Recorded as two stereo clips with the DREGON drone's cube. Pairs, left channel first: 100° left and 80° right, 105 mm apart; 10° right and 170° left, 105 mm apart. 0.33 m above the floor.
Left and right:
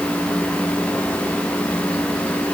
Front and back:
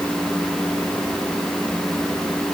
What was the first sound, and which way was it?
Only background noise.